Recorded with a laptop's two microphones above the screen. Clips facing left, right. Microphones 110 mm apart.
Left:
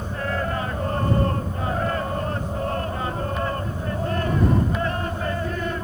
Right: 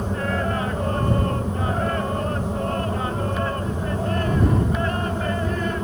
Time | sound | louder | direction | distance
0.0 | a fan | right 2 dB | 85° right | ?